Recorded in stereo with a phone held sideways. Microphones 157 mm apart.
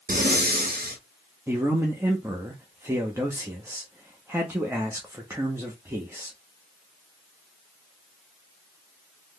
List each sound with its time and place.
0.1 s breathing: 75° right (ahead or behind), 0.7 m
1.5 s a man speaking: 15° right (ahead or behind), 0.6 m